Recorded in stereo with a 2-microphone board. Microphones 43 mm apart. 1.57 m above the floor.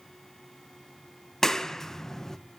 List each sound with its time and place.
1.4 s a clap: 10° left (ahead or behind), 0.8 m